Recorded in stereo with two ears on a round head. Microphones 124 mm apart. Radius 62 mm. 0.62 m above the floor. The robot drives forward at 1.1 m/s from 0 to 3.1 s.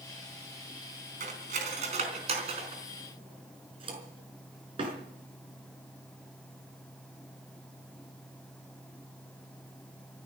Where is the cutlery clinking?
65° right (ahead or behind), 3.5 m; by 4.9 s 40° right (ahead or behind), 5 m.